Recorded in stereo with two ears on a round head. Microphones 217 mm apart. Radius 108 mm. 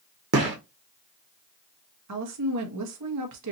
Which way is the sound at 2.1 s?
75° right (ahead or behind).